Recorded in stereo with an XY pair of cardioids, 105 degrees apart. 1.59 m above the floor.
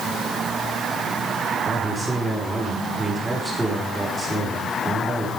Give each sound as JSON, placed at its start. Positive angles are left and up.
{"t": 1.6, "sound": "a man speaking", "azimuth_deg": -10, "distance_m": 5.0}